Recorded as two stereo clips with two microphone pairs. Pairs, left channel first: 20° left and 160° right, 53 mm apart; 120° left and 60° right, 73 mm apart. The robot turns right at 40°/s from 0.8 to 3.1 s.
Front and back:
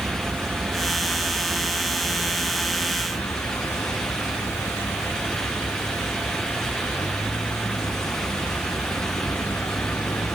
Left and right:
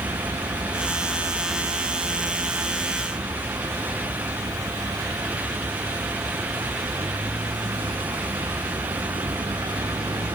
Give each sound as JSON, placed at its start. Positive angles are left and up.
{"t": 0.0, "sound": "a vehicle", "azimuth_deg": -95}